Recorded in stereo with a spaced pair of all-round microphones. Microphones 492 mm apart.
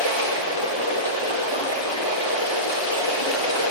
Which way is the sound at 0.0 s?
60° left (ahead or behind).